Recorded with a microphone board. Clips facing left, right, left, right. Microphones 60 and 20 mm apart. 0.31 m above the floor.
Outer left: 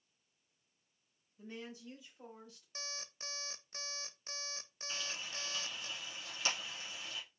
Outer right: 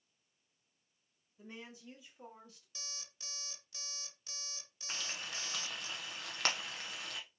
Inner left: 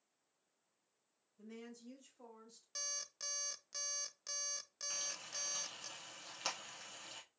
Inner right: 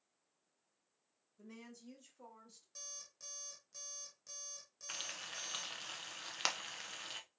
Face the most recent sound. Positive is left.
turn(degrees=-60)  # may be behind; listen again after turning